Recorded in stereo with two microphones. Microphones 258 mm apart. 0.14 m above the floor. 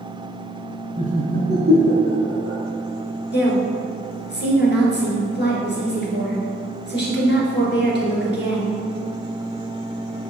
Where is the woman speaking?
45° left (ahead or behind), 1.9 m.